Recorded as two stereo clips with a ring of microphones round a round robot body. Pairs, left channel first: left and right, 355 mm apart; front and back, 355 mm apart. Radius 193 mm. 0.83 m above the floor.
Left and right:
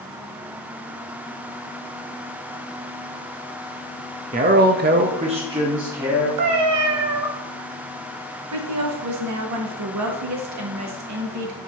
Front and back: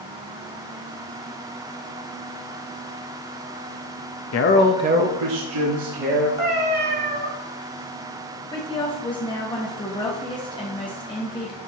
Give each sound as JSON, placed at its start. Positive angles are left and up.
{"t": 4.3, "sound": "a man speaking", "azimuth_deg": -25, "distance_m": 0.7}
{"t": 6.4, "sound": "a cat meowing", "azimuth_deg": -120, "distance_m": 1.0}
{"t": 8.5, "sound": "a woman speaking", "azimuth_deg": -75, "distance_m": 1.2}